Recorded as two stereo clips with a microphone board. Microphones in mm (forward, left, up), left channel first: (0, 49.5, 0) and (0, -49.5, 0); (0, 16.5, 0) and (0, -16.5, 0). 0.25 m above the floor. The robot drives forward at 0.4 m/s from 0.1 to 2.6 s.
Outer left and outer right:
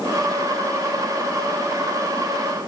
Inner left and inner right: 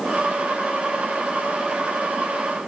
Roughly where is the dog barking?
No dog barking in this recording.